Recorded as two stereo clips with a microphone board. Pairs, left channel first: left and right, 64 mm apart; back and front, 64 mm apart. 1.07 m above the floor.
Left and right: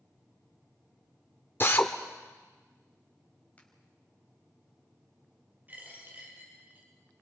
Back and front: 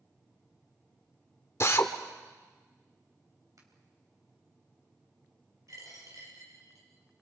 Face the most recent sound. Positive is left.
turn(degrees=-30)